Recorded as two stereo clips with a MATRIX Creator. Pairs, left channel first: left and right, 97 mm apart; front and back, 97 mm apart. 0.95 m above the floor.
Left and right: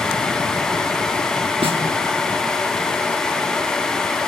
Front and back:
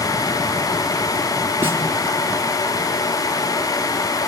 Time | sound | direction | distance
1.6 | a snare drum | 115° right | 3.5 m